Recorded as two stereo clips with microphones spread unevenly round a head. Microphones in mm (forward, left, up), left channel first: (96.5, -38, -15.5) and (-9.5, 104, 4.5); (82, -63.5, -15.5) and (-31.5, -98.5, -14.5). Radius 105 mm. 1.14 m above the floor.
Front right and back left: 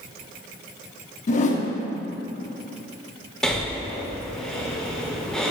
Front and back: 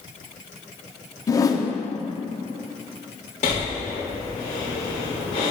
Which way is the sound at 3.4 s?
35° left.